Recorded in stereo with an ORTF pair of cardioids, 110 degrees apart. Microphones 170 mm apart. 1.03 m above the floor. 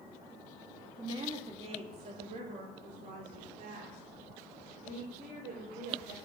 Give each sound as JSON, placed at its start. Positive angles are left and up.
{"t": 1.0, "sound": "a woman speaking", "azimuth_deg": -30, "distance_m": 2.0}